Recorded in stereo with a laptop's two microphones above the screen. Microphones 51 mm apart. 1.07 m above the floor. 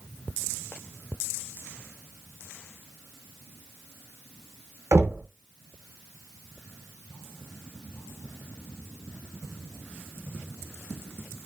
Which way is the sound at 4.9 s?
70° right (ahead or behind).